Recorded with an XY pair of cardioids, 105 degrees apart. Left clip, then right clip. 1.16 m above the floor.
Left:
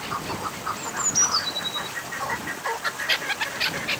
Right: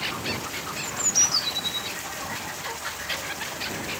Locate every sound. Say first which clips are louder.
0.8 s a bird: right 1 dB; 5° right